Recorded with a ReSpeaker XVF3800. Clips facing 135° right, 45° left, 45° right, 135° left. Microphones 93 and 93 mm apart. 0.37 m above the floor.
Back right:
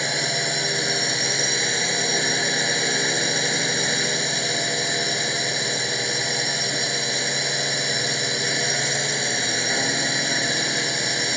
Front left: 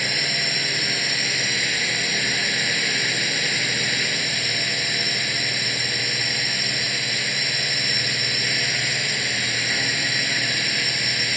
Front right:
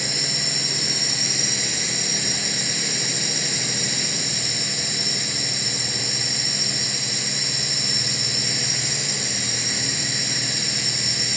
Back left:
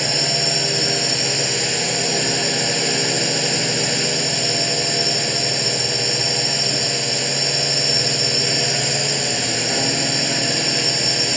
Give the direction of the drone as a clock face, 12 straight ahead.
7 o'clock.